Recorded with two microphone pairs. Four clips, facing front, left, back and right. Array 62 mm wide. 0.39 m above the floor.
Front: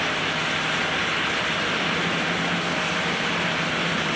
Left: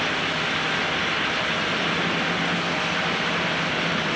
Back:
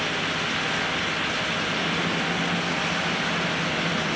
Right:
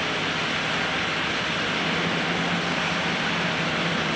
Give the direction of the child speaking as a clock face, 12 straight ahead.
No child speaking in this recording.